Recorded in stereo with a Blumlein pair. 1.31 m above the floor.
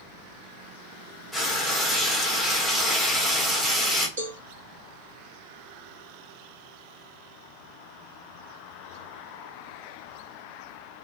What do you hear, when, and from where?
1.3 s frying: straight ahead, 1.2 m
4.2 s a cowbell: 65° right, 1.4 m